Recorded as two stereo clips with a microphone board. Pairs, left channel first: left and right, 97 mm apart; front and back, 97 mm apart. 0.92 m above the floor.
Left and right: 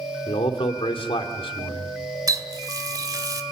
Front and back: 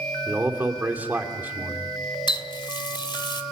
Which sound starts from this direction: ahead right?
A running tap, at 2.3 s.